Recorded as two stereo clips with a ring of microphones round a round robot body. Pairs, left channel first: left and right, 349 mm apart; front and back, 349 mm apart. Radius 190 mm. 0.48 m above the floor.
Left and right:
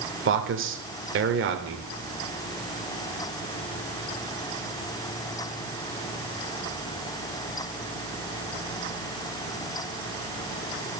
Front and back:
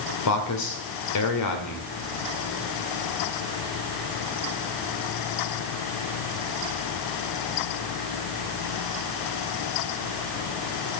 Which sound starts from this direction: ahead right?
A man speaking, at 0.2 s.